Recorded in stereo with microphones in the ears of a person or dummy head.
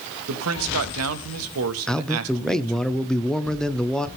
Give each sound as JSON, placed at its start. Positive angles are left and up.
{"t": 0.3, "sound": "a man speaking", "side_deg": -85, "distance_m": 1.3}
{"t": 1.9, "sound": "a man speaking", "side_deg": 5, "distance_m": 0.7}